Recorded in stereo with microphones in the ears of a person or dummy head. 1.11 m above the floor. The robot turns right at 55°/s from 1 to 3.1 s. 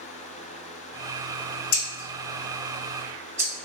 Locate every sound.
1.7 s scissors: 50° left (ahead or behind), 1.0 m; by 3.5 s 20° right (ahead or behind), 1.0 m